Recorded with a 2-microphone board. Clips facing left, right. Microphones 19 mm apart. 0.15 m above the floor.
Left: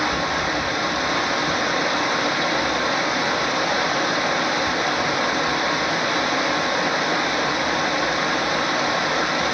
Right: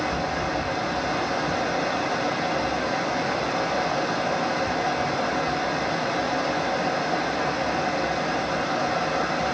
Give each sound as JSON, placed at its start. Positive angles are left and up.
{"t": 0.0, "sound": "running water", "side_deg": 60, "distance_m": 0.9}